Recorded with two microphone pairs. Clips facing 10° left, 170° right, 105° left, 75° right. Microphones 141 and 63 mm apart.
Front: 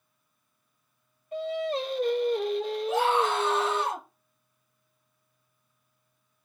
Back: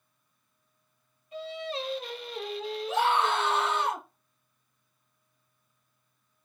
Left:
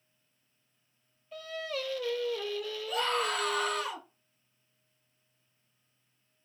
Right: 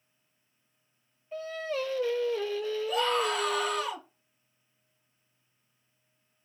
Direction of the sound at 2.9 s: 10° left.